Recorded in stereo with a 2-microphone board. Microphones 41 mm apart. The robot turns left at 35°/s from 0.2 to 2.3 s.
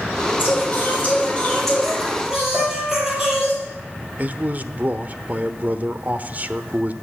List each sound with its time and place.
0.4 s singing: 55° left, 6.5 m; by 3.5 s 10° right, 6.5 m
2.5 s a piano: 5° right (ahead or behind), 9 m
4.2 s a man speaking: 40° right (ahead or behind), 1.0 m